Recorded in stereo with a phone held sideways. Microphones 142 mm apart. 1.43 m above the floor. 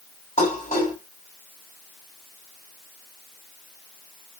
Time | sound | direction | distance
0.4 | dishes clattering | 60° left (ahead or behind) | 5.5 m